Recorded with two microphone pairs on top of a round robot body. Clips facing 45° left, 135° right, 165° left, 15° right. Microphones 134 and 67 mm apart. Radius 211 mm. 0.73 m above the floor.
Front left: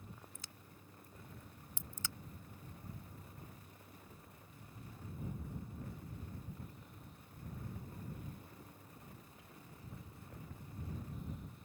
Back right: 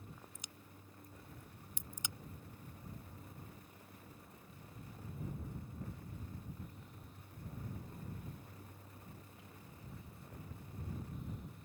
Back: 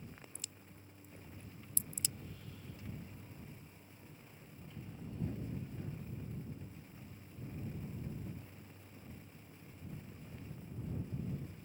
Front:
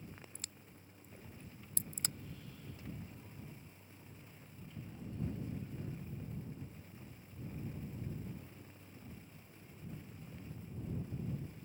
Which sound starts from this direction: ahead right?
A crack, at 0.3 s.